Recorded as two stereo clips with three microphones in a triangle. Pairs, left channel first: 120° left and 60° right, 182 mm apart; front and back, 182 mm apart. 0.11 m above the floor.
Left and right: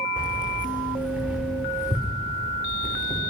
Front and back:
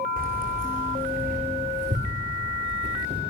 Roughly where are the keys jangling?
Behind right.